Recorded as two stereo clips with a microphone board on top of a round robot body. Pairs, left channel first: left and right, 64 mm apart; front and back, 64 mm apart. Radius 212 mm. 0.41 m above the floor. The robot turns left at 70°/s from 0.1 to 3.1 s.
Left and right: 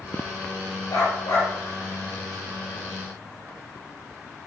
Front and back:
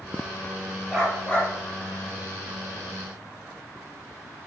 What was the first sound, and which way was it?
A dog barking, 105° left.